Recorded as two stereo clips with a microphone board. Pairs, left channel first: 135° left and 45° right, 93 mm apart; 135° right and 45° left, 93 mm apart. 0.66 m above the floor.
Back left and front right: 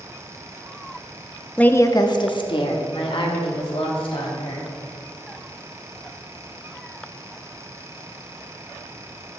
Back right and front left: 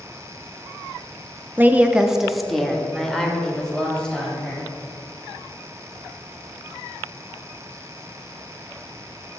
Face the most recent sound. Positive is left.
turn(degrees=145)